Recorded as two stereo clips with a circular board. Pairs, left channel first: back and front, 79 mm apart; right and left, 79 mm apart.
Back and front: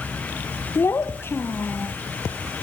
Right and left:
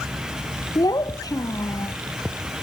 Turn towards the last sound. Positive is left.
turn(degrees=-120)